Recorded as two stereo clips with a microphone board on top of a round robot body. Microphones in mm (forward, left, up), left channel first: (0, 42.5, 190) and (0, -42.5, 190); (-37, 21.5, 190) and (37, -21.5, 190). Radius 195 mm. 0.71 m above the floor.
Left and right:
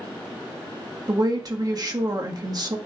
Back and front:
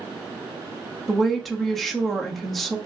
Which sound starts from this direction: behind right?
A woman speaking, at 1.1 s.